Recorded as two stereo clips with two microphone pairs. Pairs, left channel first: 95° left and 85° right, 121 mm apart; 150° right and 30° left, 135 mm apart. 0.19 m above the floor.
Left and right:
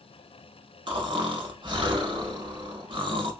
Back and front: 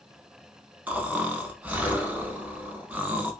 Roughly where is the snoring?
Ahead right.